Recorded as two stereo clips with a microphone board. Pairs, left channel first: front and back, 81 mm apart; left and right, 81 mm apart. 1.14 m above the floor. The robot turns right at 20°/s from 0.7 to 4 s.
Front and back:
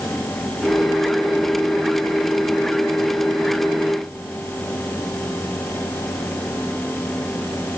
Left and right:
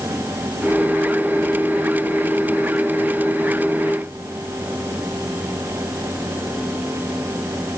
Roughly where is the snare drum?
No snare drum in this recording.